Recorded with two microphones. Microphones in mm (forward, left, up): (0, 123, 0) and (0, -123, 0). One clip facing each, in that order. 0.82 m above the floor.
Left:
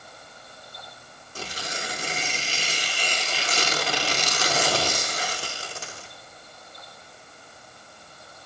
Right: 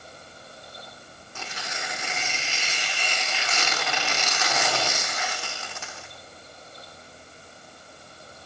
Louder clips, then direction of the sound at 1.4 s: Left 3 dB; 35° left (ahead or behind).